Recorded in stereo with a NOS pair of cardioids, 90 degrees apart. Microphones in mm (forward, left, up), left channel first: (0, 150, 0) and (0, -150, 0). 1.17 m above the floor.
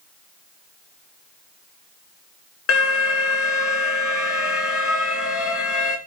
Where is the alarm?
50° left, 1.3 m.